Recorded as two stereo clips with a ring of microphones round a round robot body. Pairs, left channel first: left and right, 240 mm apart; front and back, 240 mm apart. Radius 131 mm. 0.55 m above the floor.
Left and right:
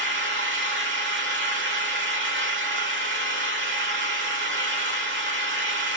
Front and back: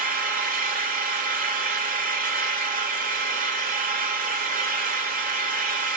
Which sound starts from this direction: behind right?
An engine running, at 0.0 s.